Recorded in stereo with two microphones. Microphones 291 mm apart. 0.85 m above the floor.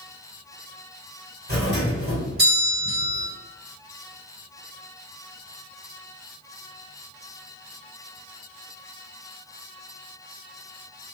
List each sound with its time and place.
1.5 s a doorbell: 35° right (ahead or behind), 1.7 m